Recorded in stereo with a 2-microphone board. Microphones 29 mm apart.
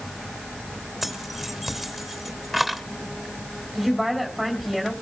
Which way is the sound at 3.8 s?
Centre (ahead or behind).